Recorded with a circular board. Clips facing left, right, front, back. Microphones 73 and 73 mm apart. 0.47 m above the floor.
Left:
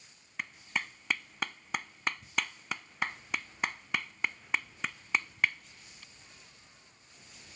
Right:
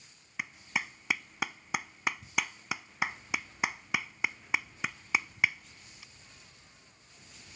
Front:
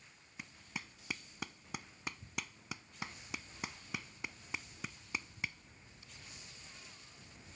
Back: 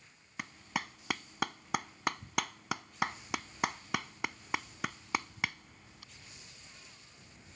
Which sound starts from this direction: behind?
A clap, at 0.4 s.